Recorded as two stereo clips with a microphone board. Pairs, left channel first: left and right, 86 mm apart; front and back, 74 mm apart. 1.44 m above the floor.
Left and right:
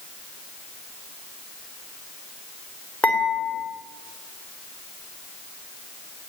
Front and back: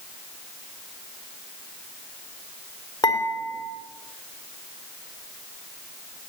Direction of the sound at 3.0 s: 20° left.